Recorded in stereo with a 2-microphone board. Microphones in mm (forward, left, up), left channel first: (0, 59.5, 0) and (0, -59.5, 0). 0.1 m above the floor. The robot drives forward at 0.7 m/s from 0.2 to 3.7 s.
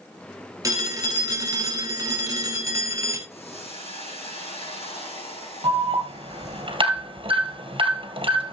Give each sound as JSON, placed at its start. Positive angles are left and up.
{"t": 0.6, "sound": "a phone ringing", "side_deg": -30, "distance_m": 1.5}
{"t": 3.3, "sound": "a hiss", "side_deg": 65, "distance_m": 4.0}
{"t": 5.6, "sound": "an alarm", "side_deg": -50, "distance_m": 2.0}